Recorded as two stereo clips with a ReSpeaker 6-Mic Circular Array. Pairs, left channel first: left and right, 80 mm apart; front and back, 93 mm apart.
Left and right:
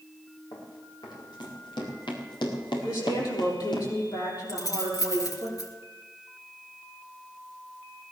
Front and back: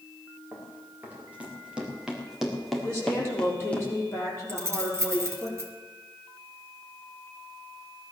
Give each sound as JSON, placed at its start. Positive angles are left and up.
{"t": 0.5, "sound": "running footsteps", "azimuth_deg": 110, "distance_m": 6.0}
{"t": 2.8, "sound": "a woman speaking", "azimuth_deg": 60, "distance_m": 6.5}
{"t": 4.5, "sound": "keys jangling", "azimuth_deg": 125, "distance_m": 2.0}